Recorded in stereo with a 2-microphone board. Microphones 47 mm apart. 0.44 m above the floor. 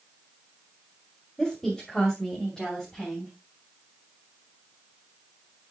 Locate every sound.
1.4 s a woman speaking: 10° left (ahead or behind), 2.5 m